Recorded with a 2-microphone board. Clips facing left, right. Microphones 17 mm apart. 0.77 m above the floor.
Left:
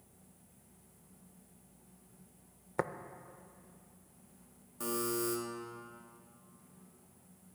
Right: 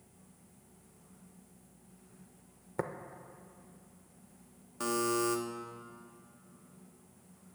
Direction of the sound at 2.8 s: 25° left (ahead or behind).